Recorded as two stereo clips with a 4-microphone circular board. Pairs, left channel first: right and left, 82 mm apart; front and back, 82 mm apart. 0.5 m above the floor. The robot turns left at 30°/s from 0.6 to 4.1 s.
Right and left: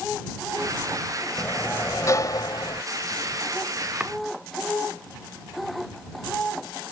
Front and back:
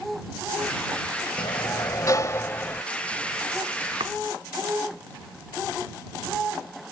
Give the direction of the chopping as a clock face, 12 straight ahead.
6 o'clock.